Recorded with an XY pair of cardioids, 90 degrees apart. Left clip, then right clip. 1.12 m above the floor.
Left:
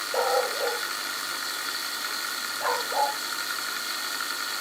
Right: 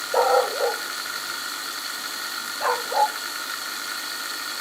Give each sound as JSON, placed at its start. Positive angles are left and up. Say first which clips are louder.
{"t": 0.1, "sound": "a dog barking", "louder": "right 6 dB", "azimuth_deg": -45, "distance_m": 2.0}